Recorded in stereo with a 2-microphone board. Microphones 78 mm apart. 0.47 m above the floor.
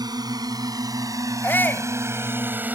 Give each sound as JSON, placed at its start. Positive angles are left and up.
{"t": 0.0, "sound": "a drone", "side_deg": -65}
{"t": 1.4, "sound": "a shout", "side_deg": 30}